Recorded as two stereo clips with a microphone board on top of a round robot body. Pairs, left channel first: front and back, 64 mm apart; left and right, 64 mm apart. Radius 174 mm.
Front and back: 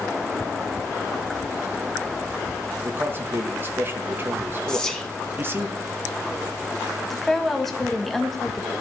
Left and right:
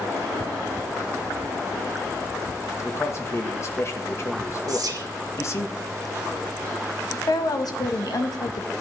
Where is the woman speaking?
85° left, 1.6 m.